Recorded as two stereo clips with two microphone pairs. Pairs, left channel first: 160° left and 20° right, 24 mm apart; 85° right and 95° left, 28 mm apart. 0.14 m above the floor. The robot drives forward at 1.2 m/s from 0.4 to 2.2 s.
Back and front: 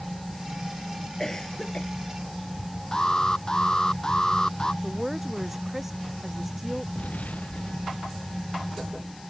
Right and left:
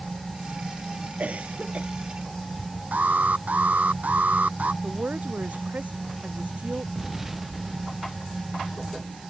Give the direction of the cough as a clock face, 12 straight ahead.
9 o'clock.